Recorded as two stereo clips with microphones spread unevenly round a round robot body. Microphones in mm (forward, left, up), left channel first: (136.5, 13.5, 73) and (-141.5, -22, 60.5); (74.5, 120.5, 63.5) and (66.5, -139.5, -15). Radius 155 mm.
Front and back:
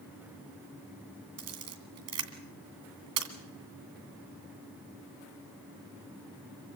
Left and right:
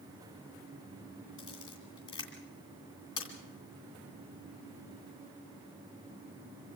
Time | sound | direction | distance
1.4 | a camera shutter | 170° left | 2.5 m